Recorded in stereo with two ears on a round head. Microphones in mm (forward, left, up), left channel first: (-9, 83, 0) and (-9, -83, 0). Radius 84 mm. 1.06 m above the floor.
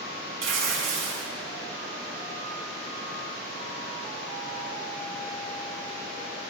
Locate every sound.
0.4 s tearing paper: 75° right (ahead or behind), 9.5 m